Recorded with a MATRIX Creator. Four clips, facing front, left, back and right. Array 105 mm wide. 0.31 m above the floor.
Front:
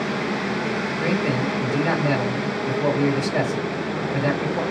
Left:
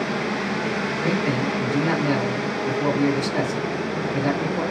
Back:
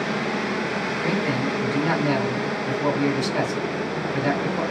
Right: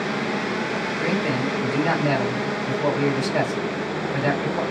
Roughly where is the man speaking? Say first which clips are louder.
Even, front 1 dB; ahead right.